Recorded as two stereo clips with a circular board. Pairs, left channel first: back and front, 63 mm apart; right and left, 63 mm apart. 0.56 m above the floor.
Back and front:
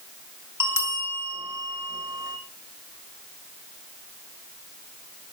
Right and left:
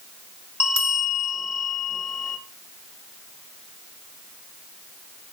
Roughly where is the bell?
Ahead right.